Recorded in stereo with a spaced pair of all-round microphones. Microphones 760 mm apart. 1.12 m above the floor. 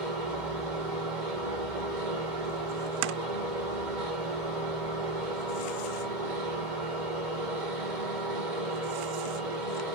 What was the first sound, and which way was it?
A machine running, 75° right (ahead or behind).